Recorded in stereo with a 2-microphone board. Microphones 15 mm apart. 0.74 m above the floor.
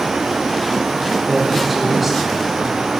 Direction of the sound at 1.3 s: Centre (ahead or behind).